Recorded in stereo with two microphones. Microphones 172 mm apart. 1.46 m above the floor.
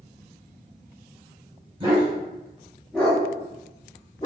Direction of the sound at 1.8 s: 30° right (ahead or behind).